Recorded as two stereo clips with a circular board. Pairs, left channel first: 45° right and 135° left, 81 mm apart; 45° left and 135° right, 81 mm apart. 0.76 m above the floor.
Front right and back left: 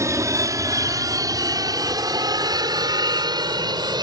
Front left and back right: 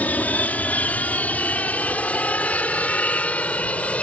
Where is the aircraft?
105° left; by 4.0 s 115° left.